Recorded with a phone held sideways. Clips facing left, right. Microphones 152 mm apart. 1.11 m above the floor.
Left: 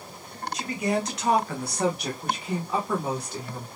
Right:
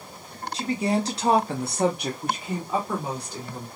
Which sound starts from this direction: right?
A woman speaking, at 0.5 s.